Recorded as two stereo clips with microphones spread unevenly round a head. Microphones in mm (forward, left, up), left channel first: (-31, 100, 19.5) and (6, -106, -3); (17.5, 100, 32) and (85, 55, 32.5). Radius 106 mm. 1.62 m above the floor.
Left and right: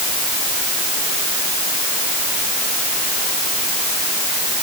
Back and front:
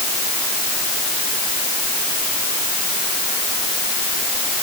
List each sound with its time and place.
Only background noise.